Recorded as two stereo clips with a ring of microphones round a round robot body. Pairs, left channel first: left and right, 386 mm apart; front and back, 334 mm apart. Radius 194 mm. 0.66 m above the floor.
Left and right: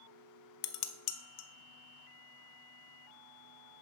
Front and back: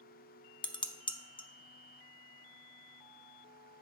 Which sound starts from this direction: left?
Dishes clattering, at 0.6 s.